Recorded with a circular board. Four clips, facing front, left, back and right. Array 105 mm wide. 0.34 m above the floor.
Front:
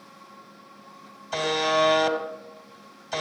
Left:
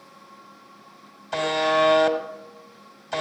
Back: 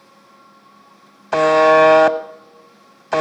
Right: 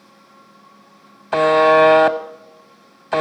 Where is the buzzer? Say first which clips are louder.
Right 10 dB, back 13 dB; 140° right, 0.7 m.